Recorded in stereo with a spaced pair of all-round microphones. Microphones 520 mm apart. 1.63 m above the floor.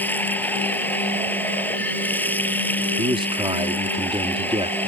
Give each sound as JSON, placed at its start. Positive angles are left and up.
{"t": 0.0, "sound": "running water", "side_deg": 5}
{"t": 3.0, "sound": "a man speaking", "side_deg": -10}